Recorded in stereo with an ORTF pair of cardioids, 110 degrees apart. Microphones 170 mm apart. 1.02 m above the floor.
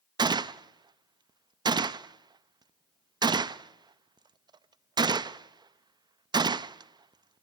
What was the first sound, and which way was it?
A gunshot, 25° right.